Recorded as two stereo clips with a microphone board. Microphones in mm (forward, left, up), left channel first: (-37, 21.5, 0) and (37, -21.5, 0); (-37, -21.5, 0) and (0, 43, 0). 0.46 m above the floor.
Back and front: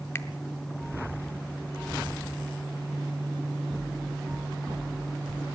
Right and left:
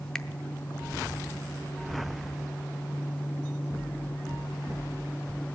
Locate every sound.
0.1 s a finger snap: 165° left, 0.6 m